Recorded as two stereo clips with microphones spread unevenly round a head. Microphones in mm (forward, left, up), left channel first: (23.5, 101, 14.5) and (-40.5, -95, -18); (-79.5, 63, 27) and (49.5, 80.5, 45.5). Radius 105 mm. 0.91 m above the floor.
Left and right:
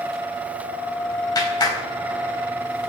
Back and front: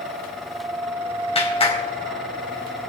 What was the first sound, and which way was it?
A clap, 145° left.